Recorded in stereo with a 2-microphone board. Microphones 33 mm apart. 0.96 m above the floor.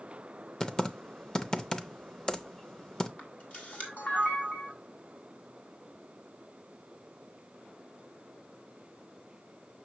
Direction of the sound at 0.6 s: 25° left (ahead or behind).